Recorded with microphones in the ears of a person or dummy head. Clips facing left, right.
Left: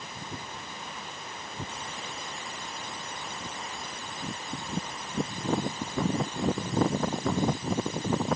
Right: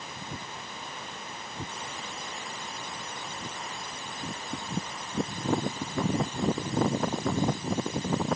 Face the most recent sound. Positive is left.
No sound to turn to.